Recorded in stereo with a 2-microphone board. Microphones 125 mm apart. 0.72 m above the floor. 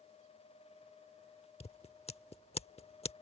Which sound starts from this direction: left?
Scissors, at 1.6 s.